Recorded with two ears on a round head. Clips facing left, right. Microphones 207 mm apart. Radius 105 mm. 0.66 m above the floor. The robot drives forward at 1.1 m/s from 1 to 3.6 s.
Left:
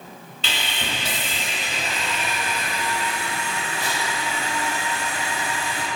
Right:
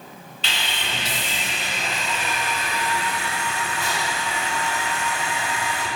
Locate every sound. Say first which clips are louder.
0.4 s sawing: left 1 dB; 85° left, 2 m; by 5.9 s 35° left (ahead or behind), 3.5 m